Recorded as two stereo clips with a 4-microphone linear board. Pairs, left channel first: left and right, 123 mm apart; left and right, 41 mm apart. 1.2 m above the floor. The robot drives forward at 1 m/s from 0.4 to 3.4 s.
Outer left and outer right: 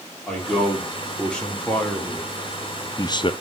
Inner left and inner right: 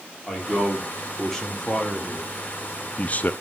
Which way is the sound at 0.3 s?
5° left (ahead or behind).